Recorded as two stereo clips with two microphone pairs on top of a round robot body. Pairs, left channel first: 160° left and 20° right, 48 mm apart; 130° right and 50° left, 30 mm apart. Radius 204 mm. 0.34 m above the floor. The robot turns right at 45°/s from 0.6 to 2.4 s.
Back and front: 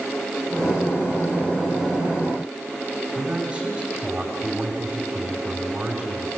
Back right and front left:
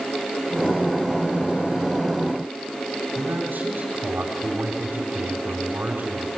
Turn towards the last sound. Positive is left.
turn(degrees=55)